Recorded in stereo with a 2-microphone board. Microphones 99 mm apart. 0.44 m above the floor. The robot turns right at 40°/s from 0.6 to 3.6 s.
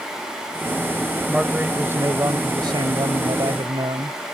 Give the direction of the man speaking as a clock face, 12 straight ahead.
6 o'clock.